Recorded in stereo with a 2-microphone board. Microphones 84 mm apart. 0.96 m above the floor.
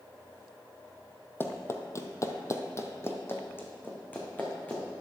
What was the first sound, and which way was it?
Running footsteps, 30° left (ahead or behind).